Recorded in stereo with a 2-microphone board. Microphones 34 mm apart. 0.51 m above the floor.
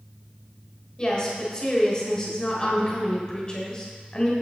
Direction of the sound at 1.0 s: 25° left (ahead or behind).